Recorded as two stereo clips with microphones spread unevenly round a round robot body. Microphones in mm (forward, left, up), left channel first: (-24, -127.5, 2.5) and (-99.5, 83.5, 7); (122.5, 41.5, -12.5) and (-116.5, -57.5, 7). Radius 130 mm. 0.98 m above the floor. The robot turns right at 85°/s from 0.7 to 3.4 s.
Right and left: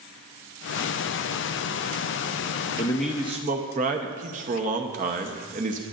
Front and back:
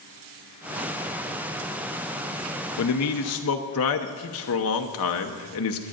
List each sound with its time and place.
2.8 s a man speaking: 5° right, 0.9 m; by 5.8 s 50° left, 0.9 m